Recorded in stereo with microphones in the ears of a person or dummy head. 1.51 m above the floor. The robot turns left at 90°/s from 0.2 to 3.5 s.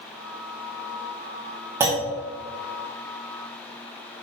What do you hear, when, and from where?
1.8 s a clunk: 15° right (ahead or behind), 1.2 m; by 2.1 s 5° left (ahead or behind), 1.2 m